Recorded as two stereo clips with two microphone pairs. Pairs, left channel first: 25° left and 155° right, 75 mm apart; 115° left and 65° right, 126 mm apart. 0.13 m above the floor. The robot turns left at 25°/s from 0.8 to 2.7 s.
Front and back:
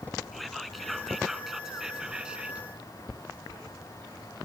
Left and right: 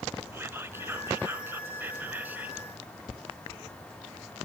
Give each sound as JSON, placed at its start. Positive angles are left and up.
{"t": 0.3, "sound": "whispering", "azimuth_deg": -65, "distance_m": 1.2}